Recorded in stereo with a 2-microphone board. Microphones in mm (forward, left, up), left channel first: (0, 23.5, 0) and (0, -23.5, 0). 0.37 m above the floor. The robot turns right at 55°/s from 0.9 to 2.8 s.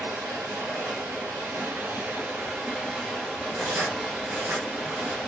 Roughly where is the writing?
Right.